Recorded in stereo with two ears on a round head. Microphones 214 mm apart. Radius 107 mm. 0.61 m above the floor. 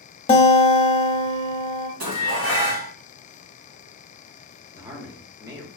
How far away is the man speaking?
About 1.0 m.